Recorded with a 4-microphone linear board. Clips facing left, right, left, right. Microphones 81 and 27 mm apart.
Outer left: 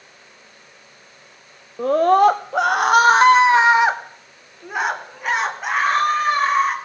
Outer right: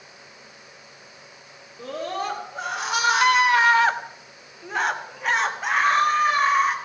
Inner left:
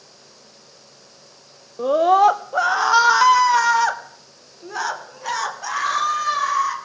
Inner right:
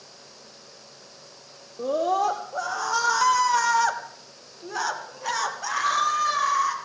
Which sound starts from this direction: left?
A scream, at 1.8 s.